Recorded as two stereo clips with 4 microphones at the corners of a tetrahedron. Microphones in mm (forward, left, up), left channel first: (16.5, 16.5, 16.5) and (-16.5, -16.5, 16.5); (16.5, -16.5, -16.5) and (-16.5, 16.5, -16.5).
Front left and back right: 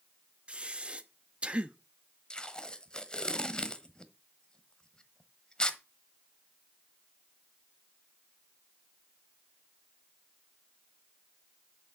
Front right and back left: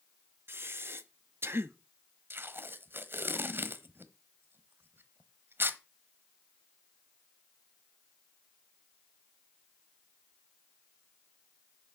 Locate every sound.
0.5 s breathing: 160° left, 0.8 m
2.3 s tape being pulled: 115° left, 1.0 m